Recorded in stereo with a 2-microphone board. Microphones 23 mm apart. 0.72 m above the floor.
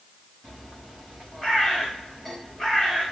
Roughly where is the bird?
Left.